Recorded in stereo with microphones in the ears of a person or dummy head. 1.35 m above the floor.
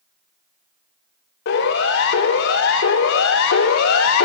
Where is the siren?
60° left (ahead or behind), 4 m; by 4.3 s 70° left (ahead or behind), 2 m.